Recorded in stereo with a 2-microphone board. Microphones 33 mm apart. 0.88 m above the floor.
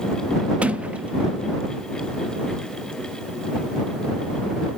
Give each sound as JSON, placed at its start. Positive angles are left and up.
{"t": 0.6, "sound": "a sliding door", "side_deg": -45}